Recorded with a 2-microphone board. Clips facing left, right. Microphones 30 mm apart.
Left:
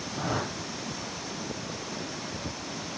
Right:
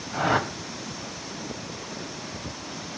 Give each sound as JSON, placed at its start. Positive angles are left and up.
{"t": 0.1, "sound": "a whoosh", "side_deg": -65, "distance_m": 2.0}